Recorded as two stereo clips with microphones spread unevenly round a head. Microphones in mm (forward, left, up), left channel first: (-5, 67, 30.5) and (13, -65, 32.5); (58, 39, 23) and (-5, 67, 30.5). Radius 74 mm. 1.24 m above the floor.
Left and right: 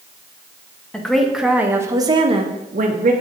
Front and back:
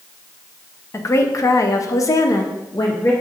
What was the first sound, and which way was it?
A woman speaking, 15° left.